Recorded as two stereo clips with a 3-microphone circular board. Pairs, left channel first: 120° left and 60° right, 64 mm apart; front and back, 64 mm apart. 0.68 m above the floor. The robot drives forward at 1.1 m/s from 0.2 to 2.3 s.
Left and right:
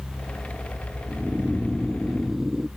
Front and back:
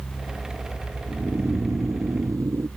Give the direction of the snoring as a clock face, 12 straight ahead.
4 o'clock.